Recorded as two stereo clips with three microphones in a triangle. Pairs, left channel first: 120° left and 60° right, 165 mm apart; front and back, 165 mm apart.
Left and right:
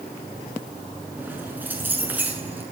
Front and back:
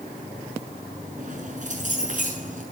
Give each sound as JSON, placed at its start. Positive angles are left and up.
{"t": 1.2, "sound": "keys jangling", "azimuth_deg": -140, "distance_m": 7.0}